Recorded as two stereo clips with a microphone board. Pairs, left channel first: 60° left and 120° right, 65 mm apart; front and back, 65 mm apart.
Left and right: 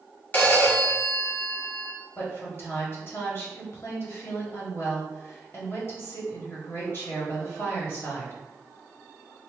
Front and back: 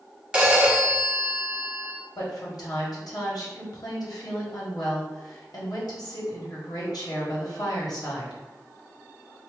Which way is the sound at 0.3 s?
110° left.